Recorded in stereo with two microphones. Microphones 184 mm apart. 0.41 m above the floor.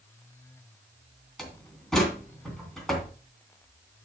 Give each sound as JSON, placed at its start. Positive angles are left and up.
{"t": 1.4, "sound": "a door slam", "side_deg": 0, "distance_m": 2.5}